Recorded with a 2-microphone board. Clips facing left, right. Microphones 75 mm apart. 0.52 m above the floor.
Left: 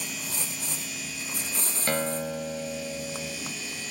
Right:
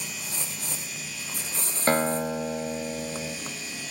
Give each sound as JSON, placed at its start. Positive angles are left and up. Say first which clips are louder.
{"t": 1.9, "sound": "a guitar", "louder": "right 5 dB", "side_deg": -40, "distance_m": 0.6}